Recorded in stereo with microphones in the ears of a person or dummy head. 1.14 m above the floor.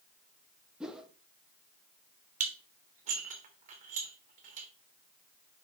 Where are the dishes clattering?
45° right (ahead or behind), 1.4 m.